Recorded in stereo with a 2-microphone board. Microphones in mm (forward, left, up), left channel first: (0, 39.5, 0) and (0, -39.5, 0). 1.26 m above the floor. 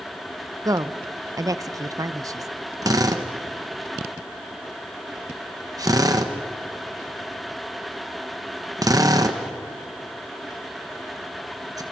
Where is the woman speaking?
45° right (ahead or behind), 0.7 m.